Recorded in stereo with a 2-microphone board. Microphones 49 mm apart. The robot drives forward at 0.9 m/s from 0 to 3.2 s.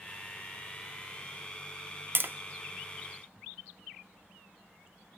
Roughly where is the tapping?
Right.